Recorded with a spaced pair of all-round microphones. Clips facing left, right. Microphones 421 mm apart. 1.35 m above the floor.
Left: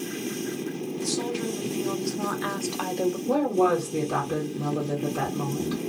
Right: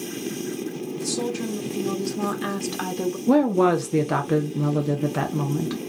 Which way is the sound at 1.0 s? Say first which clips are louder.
Right 2 dB; 65° right (ahead or behind).